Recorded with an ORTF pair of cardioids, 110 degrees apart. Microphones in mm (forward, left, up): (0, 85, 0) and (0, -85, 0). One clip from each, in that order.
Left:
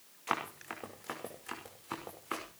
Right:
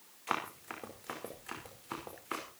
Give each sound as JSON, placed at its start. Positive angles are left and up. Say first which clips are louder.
{"t": 0.3, "sound": "running footsteps", "louder": "left 1 dB", "azimuth_deg": 10, "distance_m": 5.0}